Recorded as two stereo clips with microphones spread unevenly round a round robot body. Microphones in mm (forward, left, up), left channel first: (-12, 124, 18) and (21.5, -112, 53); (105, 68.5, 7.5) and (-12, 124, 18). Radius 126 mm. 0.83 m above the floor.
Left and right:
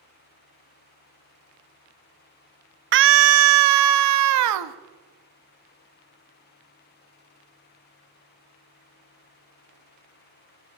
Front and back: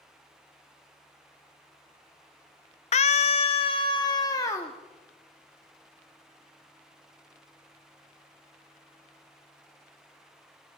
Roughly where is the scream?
Ahead right.